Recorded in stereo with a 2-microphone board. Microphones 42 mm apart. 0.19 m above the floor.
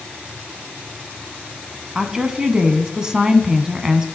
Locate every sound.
1.9 s a woman speaking: 15° right (ahead or behind), 1.5 m